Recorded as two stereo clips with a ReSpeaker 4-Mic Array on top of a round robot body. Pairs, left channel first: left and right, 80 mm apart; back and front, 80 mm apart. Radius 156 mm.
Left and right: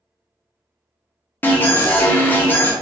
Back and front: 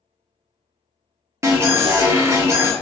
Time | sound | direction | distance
1.4 | an alarm | 35° left | 1.2 m